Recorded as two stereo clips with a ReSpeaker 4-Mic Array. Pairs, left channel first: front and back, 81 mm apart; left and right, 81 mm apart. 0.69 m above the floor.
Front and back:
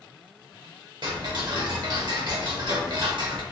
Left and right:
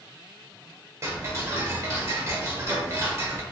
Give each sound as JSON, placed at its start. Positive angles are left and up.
{"t": 1.0, "sound": "ticking", "azimuth_deg": -145, "distance_m": 1.0}